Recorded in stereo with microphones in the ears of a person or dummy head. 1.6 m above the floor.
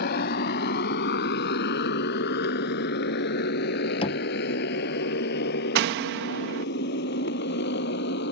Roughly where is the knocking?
Left.